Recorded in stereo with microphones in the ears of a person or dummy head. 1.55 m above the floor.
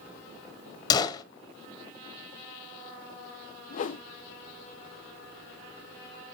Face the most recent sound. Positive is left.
turn(degrees=45)  # may be behind; listen again after turning